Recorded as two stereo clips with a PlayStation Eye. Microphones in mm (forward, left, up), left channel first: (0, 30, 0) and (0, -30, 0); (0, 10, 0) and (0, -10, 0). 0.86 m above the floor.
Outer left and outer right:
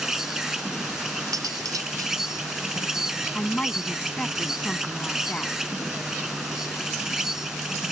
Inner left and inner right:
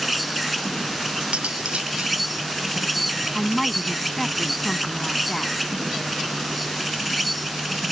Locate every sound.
0.0 s an insect: 10° right (ahead or behind)
1.3 s cutlery clinking: 80° right
3.3 s a woman speaking: 20° left (ahead or behind)